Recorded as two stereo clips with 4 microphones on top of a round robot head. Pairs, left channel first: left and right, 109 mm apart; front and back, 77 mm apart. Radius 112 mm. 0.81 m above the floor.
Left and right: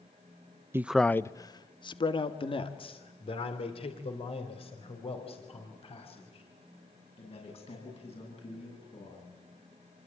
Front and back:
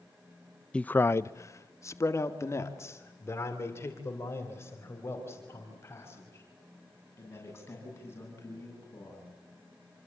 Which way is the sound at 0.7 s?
55° right.